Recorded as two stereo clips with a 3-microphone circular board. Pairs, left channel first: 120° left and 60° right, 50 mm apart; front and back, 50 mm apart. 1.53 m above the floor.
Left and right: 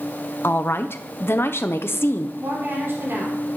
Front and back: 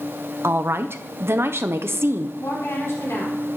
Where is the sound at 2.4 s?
25° right, 4.5 m.